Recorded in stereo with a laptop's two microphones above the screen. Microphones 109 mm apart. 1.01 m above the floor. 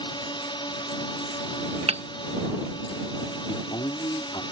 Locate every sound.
0.0 s a drone: 50° left (ahead or behind)
1.9 s hammering: 70° right (ahead or behind)
3.5 s a man speaking: 50° left (ahead or behind)